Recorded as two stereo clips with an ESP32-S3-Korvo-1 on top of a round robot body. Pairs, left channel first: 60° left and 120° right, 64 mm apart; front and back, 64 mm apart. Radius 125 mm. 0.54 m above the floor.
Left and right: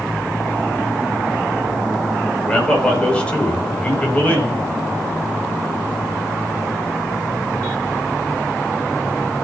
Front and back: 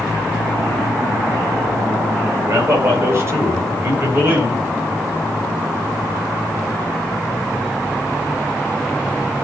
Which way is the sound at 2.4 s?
135° left.